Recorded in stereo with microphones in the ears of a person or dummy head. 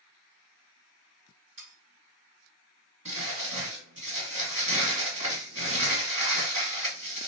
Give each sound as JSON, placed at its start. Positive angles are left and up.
{"t": 1.6, "sound": "sawing", "side_deg": -65, "distance_m": 2.5}
{"t": 3.0, "sound": "crumpling", "side_deg": -40, "distance_m": 2.5}